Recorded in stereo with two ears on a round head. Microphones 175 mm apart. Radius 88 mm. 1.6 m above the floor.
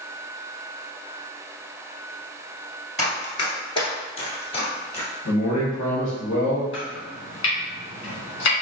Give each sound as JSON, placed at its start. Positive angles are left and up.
{"t": 3.0, "sound": "running footsteps", "side_deg": 20, "distance_m": 1.9}
{"t": 5.2, "sound": "a man speaking", "side_deg": 65, "distance_m": 1.5}
{"t": 6.7, "sound": "chopping", "side_deg": 65, "distance_m": 1.9}